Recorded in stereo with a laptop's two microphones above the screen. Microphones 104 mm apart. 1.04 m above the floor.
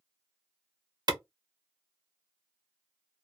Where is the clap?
45° right (ahead or behind), 0.7 m.